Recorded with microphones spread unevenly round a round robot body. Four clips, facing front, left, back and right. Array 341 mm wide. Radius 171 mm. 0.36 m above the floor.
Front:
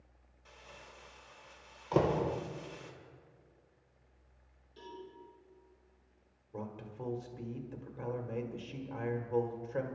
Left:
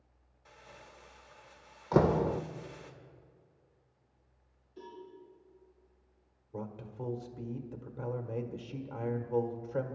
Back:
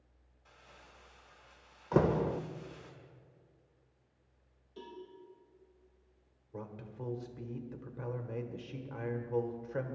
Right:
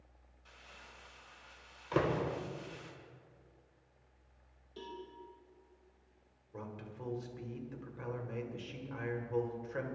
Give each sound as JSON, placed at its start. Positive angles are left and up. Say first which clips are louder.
{"t": 0.5, "sound": "crumpling", "louder": "left 4 dB, front 4 dB", "azimuth_deg": 40, "distance_m": 1.9}
{"t": 1.9, "sound": "a door slam", "louder": "left 6 dB, back 1 dB", "azimuth_deg": 120, "distance_m": 0.5}
{"t": 4.8, "sound": "a cowbell", "louder": "right 1 dB, back 1 dB", "azimuth_deg": -130, "distance_m": 6.0}
{"t": 6.5, "sound": "a man speaking", "louder": "left 5 dB, front 2 dB", "azimuth_deg": 95, "distance_m": 1.5}